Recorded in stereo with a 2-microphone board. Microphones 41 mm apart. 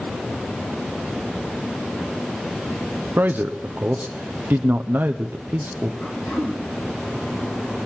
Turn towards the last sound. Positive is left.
turn(degrees=40)  # may be behind; listen again after turning